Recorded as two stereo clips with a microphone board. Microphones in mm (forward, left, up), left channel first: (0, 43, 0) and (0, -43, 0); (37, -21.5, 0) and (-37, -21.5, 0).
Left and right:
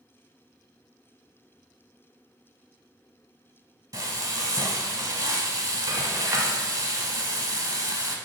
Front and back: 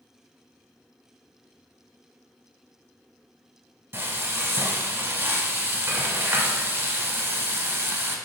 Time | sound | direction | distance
3.9 | frying | 130° right | 0.7 m